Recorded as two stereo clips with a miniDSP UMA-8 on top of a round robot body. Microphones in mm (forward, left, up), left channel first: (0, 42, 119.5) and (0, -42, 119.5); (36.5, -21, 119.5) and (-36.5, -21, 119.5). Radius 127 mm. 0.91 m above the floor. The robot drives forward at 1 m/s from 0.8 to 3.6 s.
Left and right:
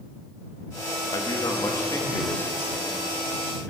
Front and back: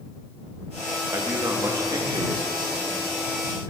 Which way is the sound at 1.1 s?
125° left.